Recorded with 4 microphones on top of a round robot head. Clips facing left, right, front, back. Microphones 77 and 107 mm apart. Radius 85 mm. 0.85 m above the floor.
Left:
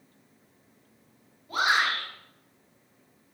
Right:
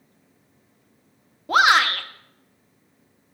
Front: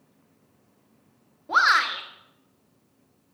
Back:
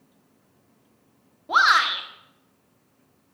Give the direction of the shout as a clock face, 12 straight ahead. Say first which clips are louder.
Right 8 dB, back 2 dB; 3 o'clock.